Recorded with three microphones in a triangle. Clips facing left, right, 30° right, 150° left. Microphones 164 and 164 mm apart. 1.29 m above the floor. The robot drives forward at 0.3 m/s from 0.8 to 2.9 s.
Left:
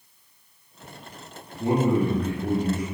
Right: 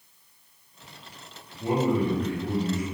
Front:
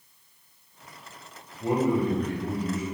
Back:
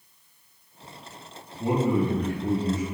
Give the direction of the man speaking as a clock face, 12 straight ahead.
8 o'clock.